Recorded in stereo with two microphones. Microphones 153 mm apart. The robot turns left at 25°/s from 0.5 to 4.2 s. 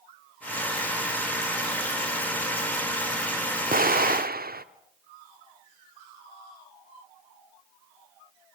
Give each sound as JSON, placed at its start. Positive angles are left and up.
{"t": 3.7, "sound": "an explosion", "side_deg": -70, "distance_m": 0.8}